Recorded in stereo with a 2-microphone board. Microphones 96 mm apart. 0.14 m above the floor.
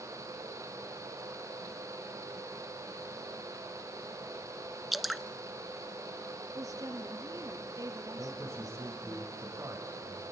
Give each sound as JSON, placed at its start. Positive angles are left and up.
{"t": 4.9, "sound": "dripping", "side_deg": 0, "distance_m": 0.5}
{"t": 6.5, "sound": "a woman speaking", "side_deg": -40, "distance_m": 4.0}
{"t": 8.2, "sound": "a man speaking", "side_deg": -30, "distance_m": 9.0}